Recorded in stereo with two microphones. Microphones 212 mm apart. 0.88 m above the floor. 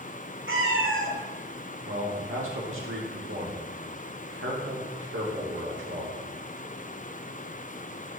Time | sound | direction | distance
0.5 | a cat meowing | 70° right (ahead or behind) | 1.3 m
1.9 | a man speaking | 70° right (ahead or behind) | 1.7 m